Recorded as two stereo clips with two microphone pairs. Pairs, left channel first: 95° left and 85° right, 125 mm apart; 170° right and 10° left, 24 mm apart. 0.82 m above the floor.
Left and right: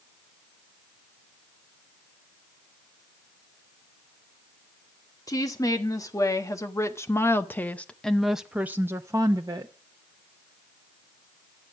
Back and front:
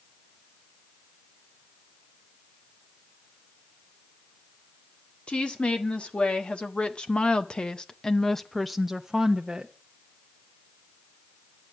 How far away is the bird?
No bird in this recording.